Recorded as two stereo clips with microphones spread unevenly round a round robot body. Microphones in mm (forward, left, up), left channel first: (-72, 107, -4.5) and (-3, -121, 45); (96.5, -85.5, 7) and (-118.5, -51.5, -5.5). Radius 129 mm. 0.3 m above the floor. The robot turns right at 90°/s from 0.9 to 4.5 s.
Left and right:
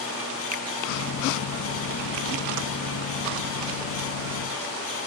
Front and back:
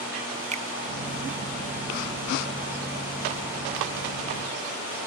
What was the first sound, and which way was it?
A finger snap, 135° right.